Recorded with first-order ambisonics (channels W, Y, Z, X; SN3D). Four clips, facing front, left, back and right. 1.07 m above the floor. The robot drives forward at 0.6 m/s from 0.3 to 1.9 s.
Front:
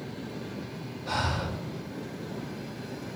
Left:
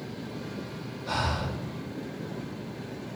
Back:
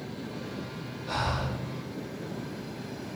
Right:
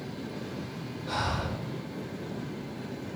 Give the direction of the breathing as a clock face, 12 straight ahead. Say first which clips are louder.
Left 1 dB, front 1 dB; 11 o'clock.